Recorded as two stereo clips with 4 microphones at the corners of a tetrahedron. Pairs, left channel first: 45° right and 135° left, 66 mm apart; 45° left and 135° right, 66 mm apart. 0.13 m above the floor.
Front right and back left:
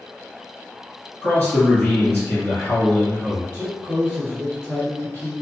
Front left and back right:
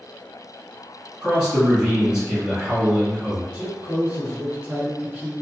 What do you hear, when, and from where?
1.2 s a man speaking: 75° right, 1.7 m
3.5 s a man speaking: 175° right, 1.6 m